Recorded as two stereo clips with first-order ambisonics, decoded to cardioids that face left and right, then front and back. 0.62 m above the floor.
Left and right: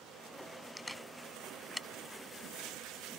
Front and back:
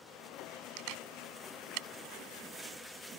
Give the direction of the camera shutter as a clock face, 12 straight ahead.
6 o'clock.